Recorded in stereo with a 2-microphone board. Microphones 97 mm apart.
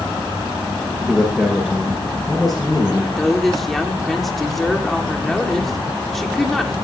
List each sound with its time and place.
1.1 s a man speaking: 5° left (ahead or behind), 8 m
3.2 s a woman speaking: centre (ahead or behind), 1.8 m